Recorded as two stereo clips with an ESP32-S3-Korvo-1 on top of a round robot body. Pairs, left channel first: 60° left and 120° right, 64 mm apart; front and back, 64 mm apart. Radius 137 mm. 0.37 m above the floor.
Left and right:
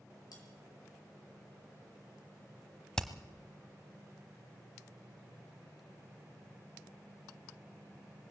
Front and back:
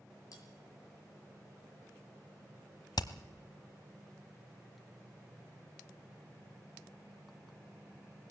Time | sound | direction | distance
0.3 | cutlery clinking | 35° left | 7.5 m
3.0 | hammering | 20° right | 1.1 m